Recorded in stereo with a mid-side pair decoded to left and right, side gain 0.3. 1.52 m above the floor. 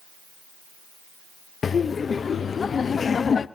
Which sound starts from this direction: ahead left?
Laughter, at 1.6 s.